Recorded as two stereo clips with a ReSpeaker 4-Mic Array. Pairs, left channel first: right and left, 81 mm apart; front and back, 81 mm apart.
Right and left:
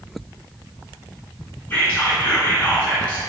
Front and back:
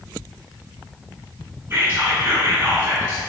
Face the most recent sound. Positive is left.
turn(degrees=-135)